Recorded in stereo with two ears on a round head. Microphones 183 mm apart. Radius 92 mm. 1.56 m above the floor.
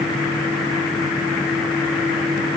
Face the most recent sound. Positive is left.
No sound to turn to.